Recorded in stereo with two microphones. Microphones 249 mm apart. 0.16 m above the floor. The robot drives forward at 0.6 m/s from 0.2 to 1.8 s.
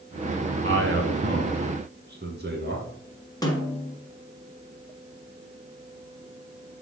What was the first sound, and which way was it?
A man speaking, 50° right (ahead or behind).